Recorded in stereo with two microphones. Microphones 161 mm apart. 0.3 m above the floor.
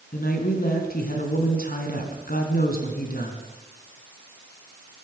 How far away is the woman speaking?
About 2.5 m.